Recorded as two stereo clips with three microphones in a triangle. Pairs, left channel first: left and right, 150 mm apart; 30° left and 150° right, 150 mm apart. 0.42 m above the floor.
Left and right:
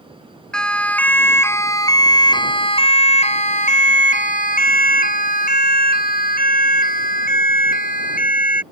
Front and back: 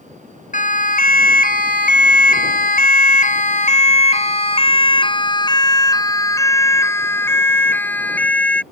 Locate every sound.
0.5 s a siren: 5° left; by 8.6 s 110° left